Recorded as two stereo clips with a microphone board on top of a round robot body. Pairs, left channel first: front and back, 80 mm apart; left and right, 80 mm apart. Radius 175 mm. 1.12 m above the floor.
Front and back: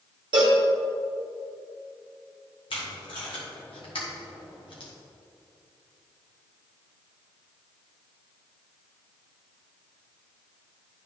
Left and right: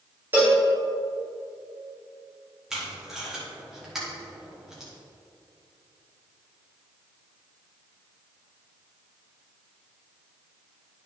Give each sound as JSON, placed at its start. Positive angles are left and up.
{"t": 0.3, "sound": "a cowbell", "azimuth_deg": -155, "distance_m": 0.8}
{"t": 2.7, "sound": "tape being pulled", "azimuth_deg": -5, "distance_m": 1.2}